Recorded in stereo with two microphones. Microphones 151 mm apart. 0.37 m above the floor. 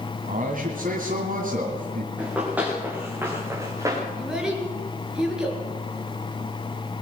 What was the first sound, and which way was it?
A man speaking, 65° right (ahead or behind).